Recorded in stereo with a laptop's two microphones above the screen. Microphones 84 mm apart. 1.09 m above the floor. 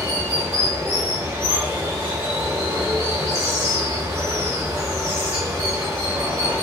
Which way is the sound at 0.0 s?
40° right (ahead or behind).